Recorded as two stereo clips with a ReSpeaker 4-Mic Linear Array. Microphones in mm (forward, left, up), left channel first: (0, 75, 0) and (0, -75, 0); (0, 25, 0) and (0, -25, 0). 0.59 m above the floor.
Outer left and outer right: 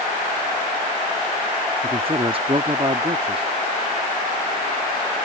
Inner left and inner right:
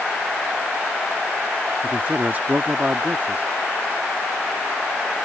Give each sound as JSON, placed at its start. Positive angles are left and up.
{"t": 1.8, "sound": "a man speaking", "side_deg": -35}